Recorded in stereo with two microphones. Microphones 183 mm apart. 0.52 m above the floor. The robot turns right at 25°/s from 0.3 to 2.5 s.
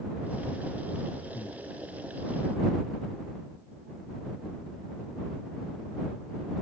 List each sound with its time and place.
1.3 s breathing: 30° left (ahead or behind); by 1.6 s 35° left (ahead or behind)